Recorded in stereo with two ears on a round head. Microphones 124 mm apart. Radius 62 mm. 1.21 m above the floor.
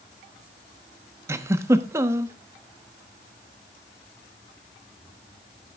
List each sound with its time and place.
1.3 s a giggle: 20° right (ahead or behind), 1.0 m